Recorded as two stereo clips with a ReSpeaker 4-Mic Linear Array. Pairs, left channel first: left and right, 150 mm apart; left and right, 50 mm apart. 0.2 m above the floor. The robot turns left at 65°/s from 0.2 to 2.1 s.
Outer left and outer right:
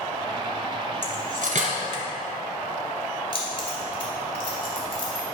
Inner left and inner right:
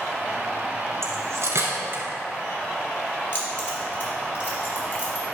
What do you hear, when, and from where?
1.0 s cutlery clinking: 55° right (ahead or behind), 1.7 m; by 2.0 s 40° right (ahead or behind), 1.7 m
3.3 s keys jangling: 40° left (ahead or behind), 2.5 m